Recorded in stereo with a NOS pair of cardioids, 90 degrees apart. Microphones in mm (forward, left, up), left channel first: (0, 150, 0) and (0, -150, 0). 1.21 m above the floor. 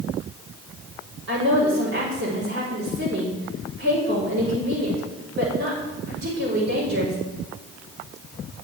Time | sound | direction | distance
1.3 | a woman speaking | 60° right | 4 m